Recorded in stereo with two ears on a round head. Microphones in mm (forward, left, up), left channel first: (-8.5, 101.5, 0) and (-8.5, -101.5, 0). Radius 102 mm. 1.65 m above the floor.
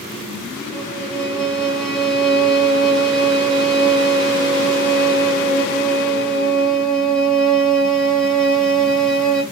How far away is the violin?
About 1.5 m.